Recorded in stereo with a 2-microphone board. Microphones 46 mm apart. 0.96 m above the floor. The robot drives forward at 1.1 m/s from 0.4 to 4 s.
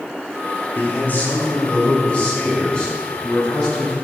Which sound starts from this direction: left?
A man speaking, at 0.8 s.